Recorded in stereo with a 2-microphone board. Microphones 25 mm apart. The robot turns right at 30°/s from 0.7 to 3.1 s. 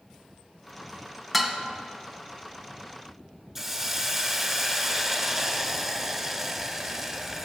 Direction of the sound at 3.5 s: 15° right (ahead or behind).